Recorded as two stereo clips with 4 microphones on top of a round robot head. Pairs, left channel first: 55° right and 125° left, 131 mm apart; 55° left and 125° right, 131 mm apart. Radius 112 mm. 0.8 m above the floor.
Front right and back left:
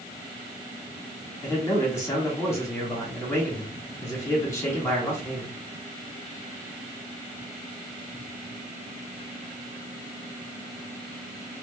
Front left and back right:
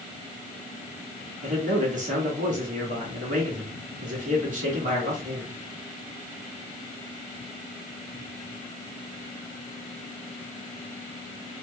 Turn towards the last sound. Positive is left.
turn(degrees=-120)